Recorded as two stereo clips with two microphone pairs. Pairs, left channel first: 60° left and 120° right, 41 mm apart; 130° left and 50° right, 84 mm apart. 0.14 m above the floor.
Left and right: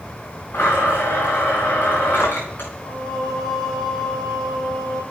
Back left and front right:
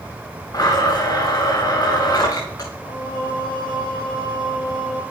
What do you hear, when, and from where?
0.5 s a blender: 85° left, 4.5 m
2.8 s singing: 145° left, 5.5 m